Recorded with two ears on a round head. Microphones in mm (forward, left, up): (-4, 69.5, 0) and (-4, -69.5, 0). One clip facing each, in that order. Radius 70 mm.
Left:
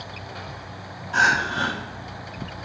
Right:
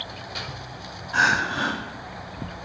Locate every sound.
1.1 s crying: 25° left (ahead or behind), 7 m